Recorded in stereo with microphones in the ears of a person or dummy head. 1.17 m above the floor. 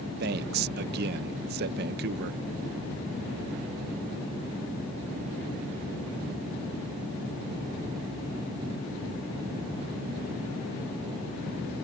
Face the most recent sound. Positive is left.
turn(degrees=-60)  # may be behind; listen again after turning